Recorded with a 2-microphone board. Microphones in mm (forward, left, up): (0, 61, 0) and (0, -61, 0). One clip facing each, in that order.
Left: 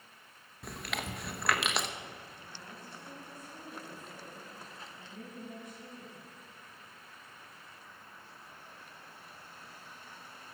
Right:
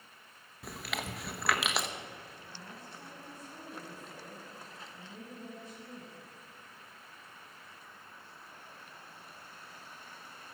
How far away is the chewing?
About 0.9 m.